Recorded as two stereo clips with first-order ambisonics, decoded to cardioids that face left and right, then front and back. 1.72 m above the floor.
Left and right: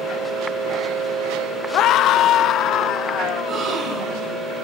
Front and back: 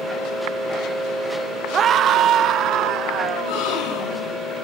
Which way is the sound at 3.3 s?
30° right.